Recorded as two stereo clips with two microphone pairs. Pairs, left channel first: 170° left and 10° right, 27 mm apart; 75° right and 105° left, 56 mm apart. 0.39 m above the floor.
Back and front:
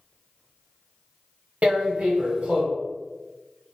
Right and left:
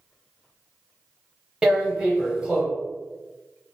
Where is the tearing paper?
25° left, 0.9 m.